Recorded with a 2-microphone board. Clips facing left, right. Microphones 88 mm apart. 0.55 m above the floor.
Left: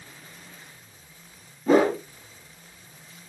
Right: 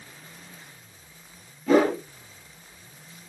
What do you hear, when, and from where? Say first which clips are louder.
1.7 s a whoosh: left 1 dB; 35° left (ahead or behind), 0.9 m